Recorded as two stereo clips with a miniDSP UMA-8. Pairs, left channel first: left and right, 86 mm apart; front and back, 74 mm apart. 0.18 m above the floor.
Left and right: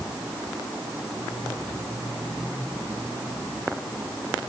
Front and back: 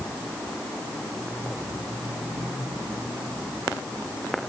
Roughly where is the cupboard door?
I don't hear a cupboard door.